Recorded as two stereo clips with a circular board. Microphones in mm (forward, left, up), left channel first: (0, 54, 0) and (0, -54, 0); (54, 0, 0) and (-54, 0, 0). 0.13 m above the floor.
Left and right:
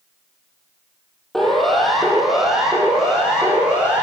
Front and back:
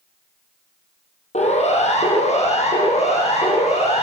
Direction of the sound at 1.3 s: Straight ahead.